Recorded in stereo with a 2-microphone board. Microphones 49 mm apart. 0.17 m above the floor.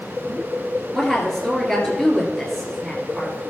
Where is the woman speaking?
5° left (ahead or behind), 2.5 m.